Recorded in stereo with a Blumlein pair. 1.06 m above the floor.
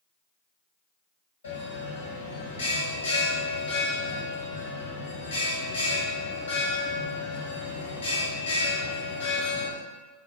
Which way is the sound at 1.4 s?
70° left.